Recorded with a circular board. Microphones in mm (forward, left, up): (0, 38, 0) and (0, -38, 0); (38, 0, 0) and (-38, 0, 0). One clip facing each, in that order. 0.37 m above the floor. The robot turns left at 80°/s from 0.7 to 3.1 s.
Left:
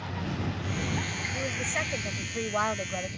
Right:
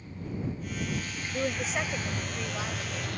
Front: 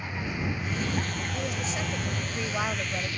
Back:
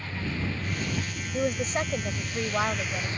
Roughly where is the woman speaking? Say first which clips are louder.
Right 3 dB, back 9 dB; behind right.